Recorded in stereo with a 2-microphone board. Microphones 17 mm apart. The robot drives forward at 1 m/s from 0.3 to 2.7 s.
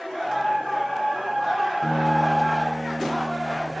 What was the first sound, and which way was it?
A guitar, 5° left (ahead or behind).